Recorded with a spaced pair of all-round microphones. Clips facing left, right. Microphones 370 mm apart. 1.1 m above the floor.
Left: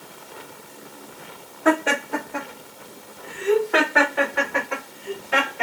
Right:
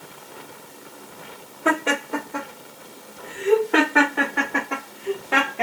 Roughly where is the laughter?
Centre.